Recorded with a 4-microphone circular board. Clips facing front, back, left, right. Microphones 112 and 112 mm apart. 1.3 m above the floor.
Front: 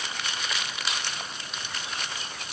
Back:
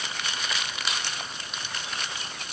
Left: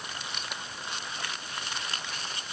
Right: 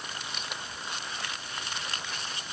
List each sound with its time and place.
Only background noise.